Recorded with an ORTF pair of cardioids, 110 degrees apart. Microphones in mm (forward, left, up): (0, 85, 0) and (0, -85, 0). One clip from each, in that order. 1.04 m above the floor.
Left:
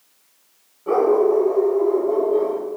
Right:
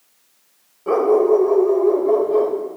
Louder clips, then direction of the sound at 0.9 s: Right 2 dB; 25° right.